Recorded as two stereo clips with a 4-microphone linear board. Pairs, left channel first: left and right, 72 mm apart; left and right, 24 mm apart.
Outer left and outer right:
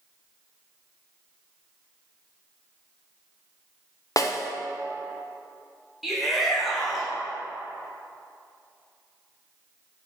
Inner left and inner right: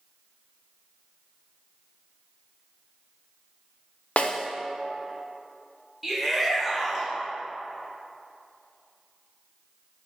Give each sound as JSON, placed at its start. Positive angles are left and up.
{"t": 4.2, "sound": "a snare drum", "side_deg": 50, "distance_m": 0.5}
{"t": 6.0, "sound": "a shout", "side_deg": 0, "distance_m": 1.6}